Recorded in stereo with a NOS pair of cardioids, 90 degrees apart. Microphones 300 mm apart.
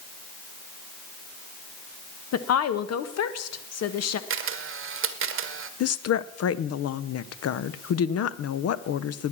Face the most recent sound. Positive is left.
turn(degrees=55)